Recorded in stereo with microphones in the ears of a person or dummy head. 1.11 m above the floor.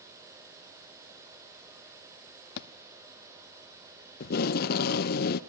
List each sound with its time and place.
2.6 s a thud: 60° left (ahead or behind), 0.8 m
4.2 s tape being pulled: 50° left (ahead or behind), 0.7 m